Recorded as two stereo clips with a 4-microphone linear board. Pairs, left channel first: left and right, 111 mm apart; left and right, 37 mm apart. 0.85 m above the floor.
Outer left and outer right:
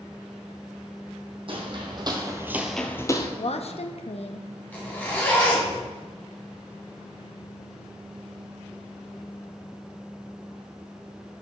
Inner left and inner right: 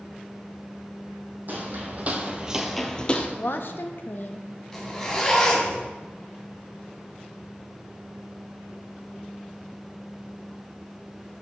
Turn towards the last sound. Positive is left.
turn(degrees=15)  # may be behind; listen again after turning